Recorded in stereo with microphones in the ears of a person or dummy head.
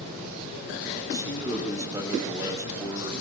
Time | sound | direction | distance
1.1 | a man speaking | 15° right (ahead or behind) | 6 m